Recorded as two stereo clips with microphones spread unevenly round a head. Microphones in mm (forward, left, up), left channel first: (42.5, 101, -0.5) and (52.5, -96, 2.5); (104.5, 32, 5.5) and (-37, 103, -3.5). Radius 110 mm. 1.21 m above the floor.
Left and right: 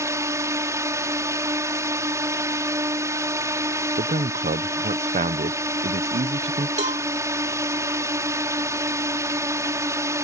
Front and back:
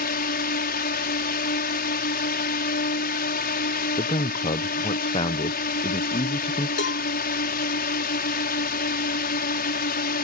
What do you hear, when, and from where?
0.0 s a drone: 15° right
4.0 s a man speaking: 60° right
6.8 s a cowbell: 35° right